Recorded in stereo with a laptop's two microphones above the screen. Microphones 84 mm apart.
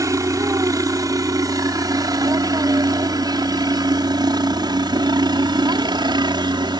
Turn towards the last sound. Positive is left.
turn(degrees=-60)  # may be behind; listen again after turning